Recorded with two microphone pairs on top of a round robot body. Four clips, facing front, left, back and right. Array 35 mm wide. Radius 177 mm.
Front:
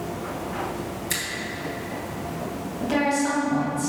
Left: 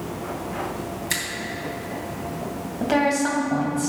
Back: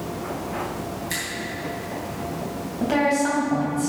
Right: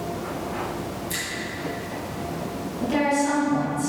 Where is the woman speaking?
105° left, 3 m.